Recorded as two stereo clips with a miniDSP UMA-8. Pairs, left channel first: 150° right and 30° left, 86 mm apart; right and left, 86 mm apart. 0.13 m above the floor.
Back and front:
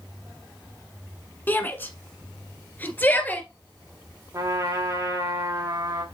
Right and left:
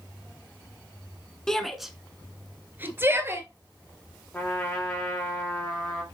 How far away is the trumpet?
About 2.5 m.